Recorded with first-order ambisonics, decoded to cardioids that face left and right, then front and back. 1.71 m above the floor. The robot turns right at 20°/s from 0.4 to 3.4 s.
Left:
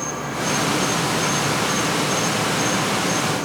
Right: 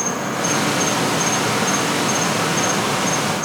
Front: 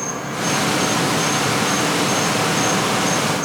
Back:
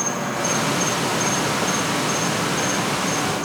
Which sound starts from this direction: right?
An insect, at 0.0 s.